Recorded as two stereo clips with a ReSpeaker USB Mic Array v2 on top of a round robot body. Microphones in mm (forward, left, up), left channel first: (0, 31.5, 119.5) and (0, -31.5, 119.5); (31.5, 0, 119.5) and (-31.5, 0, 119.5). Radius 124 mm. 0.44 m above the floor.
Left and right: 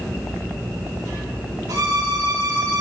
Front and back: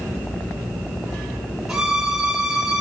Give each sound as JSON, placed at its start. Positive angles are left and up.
{"t": 1.7, "sound": "a violin", "azimuth_deg": -100, "distance_m": 4.0}